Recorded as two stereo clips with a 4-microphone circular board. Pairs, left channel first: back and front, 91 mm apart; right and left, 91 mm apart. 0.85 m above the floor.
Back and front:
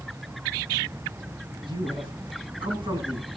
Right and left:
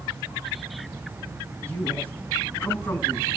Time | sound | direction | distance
1.6 | a man speaking | 15° right | 8.5 m